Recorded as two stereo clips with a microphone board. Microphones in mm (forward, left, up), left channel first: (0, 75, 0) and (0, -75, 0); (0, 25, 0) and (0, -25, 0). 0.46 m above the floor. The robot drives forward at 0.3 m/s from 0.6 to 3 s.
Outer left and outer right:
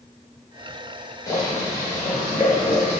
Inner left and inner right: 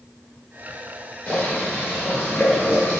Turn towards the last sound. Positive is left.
turn(degrees=15)  # may be behind; listen again after turning